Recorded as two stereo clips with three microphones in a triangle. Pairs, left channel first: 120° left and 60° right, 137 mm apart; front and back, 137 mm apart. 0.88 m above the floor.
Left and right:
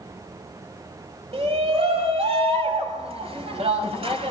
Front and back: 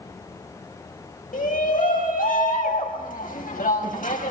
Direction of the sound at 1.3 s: 15° right.